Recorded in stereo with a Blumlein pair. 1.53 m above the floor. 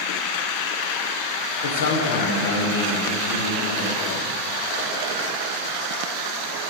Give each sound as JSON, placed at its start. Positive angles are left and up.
{"t": 1.6, "sound": "a man speaking", "azimuth_deg": 65, "distance_m": 1.1}